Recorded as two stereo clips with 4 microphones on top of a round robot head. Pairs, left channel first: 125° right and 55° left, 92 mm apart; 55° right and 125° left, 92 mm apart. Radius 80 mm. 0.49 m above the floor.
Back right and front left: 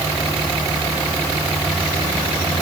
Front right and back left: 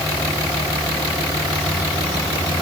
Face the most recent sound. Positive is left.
No sound to turn to.